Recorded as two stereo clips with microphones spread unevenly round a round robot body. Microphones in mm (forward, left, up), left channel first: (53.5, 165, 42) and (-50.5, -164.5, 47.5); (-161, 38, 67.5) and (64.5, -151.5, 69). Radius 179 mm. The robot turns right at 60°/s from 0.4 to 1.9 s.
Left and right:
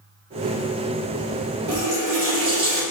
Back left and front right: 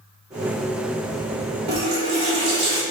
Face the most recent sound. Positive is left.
turn(degrees=-60)